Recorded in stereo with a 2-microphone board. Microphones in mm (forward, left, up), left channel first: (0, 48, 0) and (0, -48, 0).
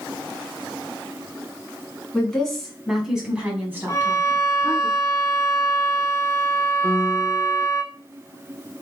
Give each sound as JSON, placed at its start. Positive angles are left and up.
{"t": 2.1, "sound": "a woman speaking", "side_deg": 5, "distance_m": 2.0}
{"t": 3.9, "sound": "a violin", "side_deg": 35, "distance_m": 1.0}
{"t": 6.8, "sound": "a piano", "side_deg": -35, "distance_m": 0.9}